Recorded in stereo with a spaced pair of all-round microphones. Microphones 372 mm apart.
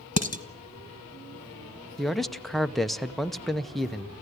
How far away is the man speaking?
About 0.7 m.